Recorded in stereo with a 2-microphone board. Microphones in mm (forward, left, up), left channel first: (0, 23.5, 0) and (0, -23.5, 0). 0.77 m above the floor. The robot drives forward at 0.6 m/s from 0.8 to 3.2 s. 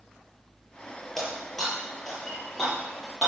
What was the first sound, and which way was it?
Breaking glass, 5° left (ahead or behind).